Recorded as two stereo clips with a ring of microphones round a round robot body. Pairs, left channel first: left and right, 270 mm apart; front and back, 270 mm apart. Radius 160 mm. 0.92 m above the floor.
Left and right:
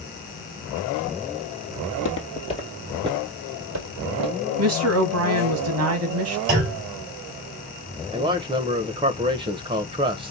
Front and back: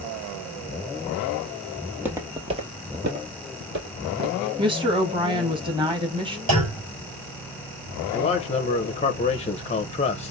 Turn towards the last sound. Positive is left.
turn(degrees=-40)